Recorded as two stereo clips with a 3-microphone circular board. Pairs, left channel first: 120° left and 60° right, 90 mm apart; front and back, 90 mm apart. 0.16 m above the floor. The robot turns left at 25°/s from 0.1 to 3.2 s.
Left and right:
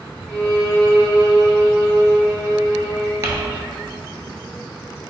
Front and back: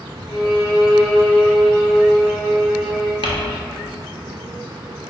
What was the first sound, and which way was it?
A violin, 160° left.